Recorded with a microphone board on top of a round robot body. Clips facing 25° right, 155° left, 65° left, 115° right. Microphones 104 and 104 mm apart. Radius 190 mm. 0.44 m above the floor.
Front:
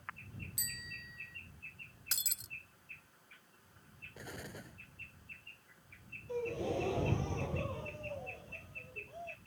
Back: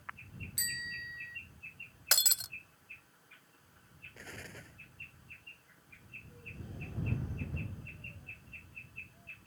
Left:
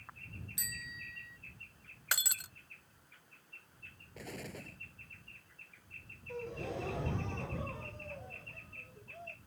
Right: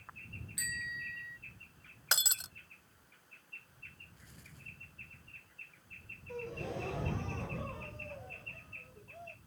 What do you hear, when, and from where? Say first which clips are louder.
0.6 s a bicycle bell: back 7 dB, right 9 dB; 130° left
2.1 s breaking glass: back 13 dB, right 1 dB; straight behind
4.2 s an explosion: front 2 dB, left 18 dB; 55° left
6.3 s a gasp: front 16 dB, even; 20° right